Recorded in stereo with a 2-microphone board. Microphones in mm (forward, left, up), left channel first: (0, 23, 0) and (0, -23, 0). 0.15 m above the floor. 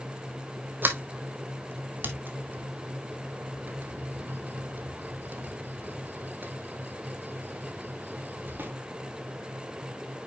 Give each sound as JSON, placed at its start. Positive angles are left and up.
{"t": 0.8, "sound": "a sliding door", "side_deg": -45, "distance_m": 1.3}